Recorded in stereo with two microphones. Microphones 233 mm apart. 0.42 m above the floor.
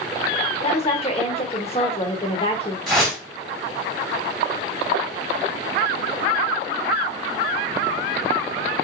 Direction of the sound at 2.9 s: Centre (ahead or behind).